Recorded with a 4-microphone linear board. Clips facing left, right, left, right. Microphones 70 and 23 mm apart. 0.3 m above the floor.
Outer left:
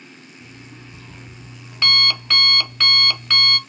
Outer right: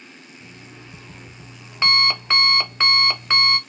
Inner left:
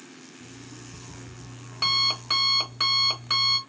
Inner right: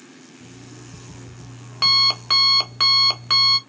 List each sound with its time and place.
0.4 s an alarm clock: 25° right (ahead or behind), 0.6 m